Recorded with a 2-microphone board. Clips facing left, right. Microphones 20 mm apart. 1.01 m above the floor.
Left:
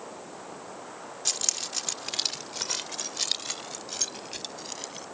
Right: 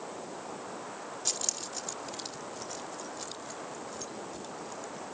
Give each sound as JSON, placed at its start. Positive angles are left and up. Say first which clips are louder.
{"t": 1.2, "sound": "keys jangling", "louder": "left 6 dB", "side_deg": 20}